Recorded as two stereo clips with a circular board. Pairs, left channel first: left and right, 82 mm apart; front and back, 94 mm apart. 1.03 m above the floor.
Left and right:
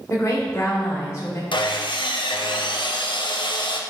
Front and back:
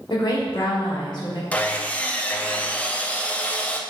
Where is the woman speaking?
35° left, 2.5 m.